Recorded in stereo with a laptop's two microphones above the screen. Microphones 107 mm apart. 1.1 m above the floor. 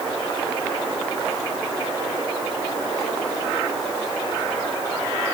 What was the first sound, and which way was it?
Only background noise.